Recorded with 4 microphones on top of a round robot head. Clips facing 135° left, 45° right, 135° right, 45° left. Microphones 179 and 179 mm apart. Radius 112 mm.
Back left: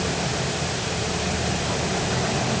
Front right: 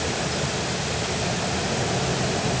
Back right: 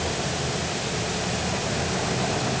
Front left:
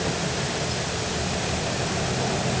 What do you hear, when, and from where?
Only background noise.